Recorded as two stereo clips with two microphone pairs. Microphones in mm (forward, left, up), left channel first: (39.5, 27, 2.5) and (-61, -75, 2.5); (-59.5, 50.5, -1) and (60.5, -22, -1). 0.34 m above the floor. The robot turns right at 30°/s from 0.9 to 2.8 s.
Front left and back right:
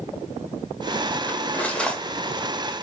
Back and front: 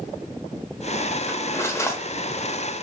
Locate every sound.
1.3 s cutlery clinking: 105° left, 0.6 m; by 2.8 s 155° left, 0.6 m